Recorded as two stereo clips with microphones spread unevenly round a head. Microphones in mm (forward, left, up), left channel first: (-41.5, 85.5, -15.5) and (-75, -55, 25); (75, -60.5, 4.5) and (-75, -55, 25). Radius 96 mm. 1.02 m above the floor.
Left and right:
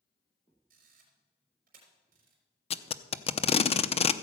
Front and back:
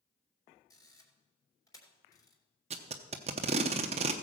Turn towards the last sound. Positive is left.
turn(degrees=130)